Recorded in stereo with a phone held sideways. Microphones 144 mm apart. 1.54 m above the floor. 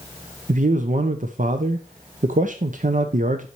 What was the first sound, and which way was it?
A man speaking, 65° right (ahead or behind).